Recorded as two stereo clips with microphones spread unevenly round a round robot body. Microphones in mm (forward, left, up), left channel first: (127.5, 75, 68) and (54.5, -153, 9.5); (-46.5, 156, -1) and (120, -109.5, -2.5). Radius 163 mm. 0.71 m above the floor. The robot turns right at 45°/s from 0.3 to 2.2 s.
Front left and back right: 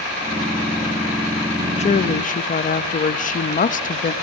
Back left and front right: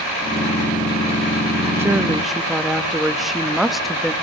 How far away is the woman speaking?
About 0.7 m.